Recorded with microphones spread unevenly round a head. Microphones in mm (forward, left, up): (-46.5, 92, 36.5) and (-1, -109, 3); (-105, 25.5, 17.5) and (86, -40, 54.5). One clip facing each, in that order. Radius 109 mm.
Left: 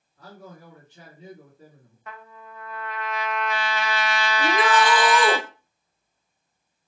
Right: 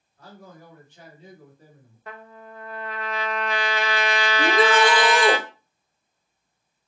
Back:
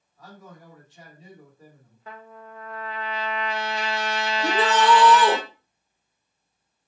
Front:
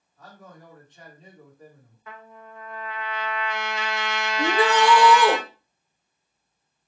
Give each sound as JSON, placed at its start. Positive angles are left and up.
{"t": 0.2, "sound": "a man speaking", "azimuth_deg": 75, "distance_m": 1.3}
{"t": 2.1, "sound": "a trumpet", "azimuth_deg": -140, "distance_m": 0.5}
{"t": 4.4, "sound": "a shout", "azimuth_deg": -105, "distance_m": 0.6}